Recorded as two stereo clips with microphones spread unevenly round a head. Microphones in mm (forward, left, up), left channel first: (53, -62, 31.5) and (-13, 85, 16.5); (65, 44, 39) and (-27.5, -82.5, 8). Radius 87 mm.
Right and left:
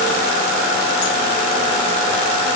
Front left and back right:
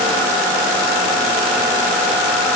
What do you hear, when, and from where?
Only background noise.